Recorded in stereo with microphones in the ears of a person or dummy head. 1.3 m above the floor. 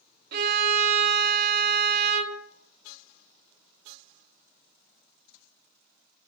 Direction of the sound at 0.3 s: 50° right (ahead or behind).